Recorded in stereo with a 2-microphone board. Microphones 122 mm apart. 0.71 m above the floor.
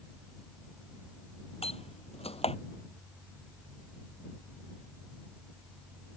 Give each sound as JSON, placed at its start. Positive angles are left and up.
{"t": 1.6, "sound": "a door slam", "side_deg": 55}